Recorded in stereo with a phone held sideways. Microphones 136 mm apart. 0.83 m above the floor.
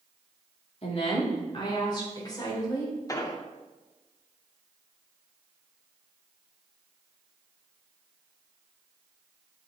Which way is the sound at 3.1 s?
25° left (ahead or behind).